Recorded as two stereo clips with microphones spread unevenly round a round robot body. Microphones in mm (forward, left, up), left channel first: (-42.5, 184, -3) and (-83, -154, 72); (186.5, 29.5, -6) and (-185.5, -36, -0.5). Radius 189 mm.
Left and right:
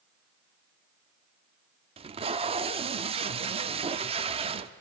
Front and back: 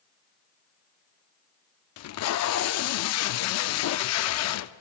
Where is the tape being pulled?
15° right, 0.5 m.